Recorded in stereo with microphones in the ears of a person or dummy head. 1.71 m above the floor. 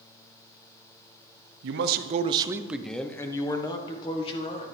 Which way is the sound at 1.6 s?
70° right (ahead or behind).